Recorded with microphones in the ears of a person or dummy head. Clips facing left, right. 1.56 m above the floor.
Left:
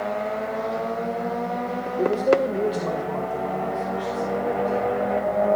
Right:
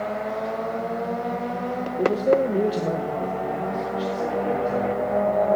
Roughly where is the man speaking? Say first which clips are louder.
Even; centre.